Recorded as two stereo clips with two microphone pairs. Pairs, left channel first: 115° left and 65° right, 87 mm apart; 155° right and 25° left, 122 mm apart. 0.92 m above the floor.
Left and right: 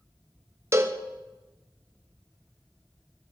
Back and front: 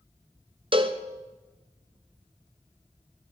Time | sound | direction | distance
0.7 | a cowbell | 15° right | 0.6 m